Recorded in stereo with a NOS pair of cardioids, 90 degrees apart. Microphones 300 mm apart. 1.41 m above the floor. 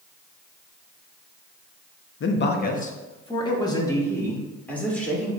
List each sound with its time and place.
2.2 s a man speaking: 45° left, 0.9 m; by 5.3 s 5° left, 2.5 m